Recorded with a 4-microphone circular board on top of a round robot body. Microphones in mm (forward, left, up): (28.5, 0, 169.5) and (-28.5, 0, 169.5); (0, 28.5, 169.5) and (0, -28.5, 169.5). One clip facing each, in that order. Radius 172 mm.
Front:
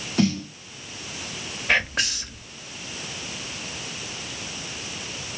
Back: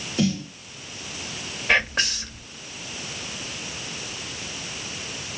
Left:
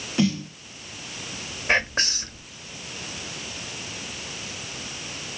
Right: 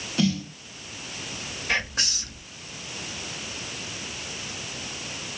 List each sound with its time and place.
0.2 s a snare drum: 20° left, 1.9 m
1.7 s whispering: 85° left, 1.3 m